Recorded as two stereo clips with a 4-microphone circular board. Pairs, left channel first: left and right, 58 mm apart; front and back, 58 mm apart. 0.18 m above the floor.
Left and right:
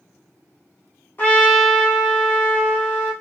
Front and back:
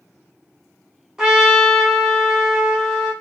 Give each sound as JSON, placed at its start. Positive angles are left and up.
{"t": 1.2, "sound": "a trumpet", "azimuth_deg": 105, "distance_m": 1.0}